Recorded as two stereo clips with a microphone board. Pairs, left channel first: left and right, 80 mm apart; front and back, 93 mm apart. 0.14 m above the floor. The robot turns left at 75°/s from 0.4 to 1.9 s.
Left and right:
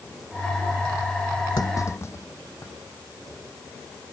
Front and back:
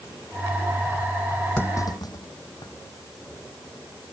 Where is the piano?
I don't hear a piano.